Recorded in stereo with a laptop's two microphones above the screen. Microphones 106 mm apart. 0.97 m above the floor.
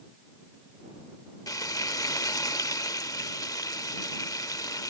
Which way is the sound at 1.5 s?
35° left (ahead or behind).